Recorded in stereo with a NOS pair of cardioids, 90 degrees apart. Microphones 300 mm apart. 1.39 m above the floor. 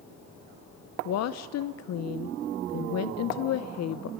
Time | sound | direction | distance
1.1 | a woman speaking | 60° left | 0.8 m